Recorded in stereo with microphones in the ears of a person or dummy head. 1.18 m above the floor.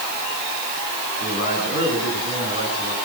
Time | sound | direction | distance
1.2 | a man speaking | 60° left (ahead or behind) | 9.5 m